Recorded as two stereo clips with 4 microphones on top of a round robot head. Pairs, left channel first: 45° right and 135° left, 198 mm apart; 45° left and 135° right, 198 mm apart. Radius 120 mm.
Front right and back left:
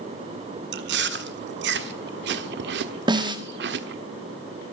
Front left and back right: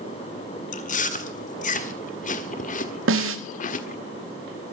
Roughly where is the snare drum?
Behind right.